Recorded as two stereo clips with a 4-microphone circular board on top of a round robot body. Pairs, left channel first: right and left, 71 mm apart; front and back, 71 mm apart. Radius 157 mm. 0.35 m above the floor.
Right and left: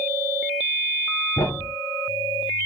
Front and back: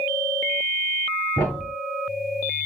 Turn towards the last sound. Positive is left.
turn(degrees=-50)